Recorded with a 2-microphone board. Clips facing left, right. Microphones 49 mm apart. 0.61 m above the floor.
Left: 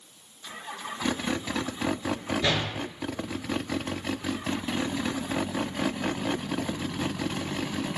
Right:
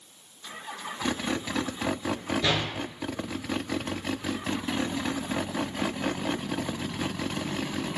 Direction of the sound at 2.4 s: 10° left (ahead or behind).